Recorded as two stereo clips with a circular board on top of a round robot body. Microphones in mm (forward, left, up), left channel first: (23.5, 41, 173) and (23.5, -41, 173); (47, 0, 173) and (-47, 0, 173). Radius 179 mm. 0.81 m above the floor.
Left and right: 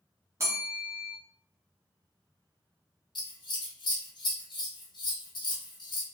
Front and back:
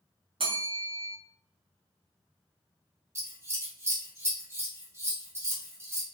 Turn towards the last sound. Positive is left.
turn(degrees=120)